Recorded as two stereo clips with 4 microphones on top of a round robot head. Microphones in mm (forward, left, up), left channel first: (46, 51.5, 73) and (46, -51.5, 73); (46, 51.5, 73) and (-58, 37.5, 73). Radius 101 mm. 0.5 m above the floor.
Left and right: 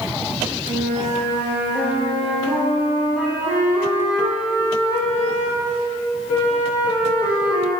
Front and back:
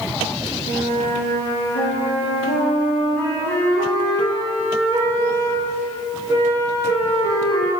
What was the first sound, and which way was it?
A flute, 15° right.